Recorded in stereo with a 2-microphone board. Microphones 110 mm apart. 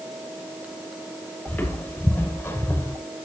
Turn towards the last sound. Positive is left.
turn(degrees=20)  # may be behind; listen again after turning